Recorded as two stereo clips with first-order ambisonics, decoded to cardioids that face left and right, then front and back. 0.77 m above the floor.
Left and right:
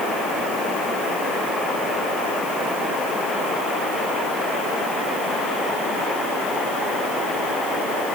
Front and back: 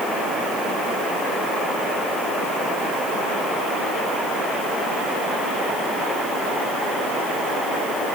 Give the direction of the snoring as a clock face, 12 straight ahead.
I don't hear snoring.